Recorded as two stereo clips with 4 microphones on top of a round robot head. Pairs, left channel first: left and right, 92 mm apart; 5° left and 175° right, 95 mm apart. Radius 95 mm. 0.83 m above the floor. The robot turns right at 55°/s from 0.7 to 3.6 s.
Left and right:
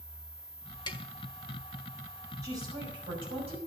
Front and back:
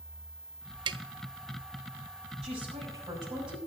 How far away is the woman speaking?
About 5.5 m.